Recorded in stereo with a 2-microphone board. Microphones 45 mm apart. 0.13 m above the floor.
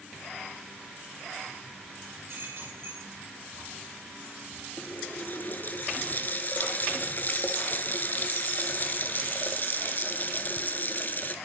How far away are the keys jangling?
About 8.5 m.